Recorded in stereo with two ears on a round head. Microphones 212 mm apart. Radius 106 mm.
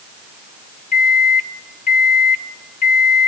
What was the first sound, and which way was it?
A microwave, 35° left (ahead or behind).